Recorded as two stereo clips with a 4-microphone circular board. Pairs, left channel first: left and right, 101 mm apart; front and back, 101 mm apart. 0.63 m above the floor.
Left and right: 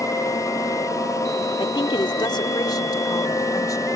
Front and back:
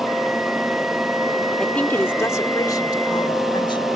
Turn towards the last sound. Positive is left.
turn(degrees=35)